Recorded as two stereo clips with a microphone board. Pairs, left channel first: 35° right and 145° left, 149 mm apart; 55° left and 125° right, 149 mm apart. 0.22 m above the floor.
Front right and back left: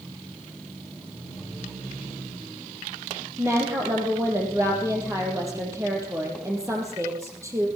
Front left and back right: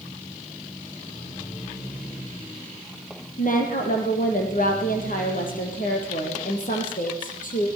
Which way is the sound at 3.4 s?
75° left.